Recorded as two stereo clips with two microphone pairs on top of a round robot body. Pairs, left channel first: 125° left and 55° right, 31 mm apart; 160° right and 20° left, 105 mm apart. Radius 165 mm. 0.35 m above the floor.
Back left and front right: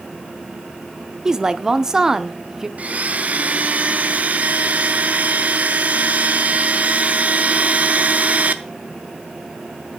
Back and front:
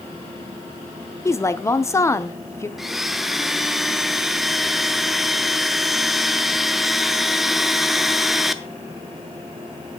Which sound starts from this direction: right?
A blender, at 2.8 s.